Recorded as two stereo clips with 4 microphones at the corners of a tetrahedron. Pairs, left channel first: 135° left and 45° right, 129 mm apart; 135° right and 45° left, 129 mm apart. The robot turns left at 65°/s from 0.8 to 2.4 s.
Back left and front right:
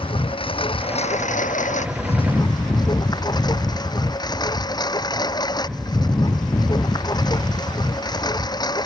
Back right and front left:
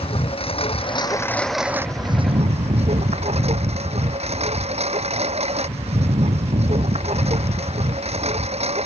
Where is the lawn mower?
Straight behind; by 8.9 s 80° left.